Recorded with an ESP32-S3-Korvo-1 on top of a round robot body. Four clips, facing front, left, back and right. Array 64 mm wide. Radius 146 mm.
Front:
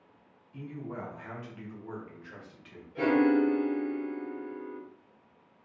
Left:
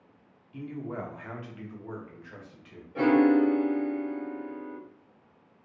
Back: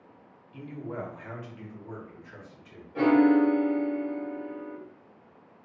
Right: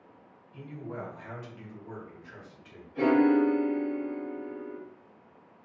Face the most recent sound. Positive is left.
turn(degrees=140)